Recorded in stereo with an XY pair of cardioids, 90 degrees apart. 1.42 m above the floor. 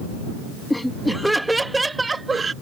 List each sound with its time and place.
0.7 s laughter: 10° left; by 2.5 s 35° right